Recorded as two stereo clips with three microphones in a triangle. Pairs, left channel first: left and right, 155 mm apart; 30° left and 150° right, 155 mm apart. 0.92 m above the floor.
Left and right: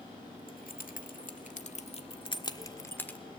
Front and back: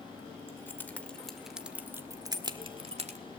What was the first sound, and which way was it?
Keys jangling, 100° left.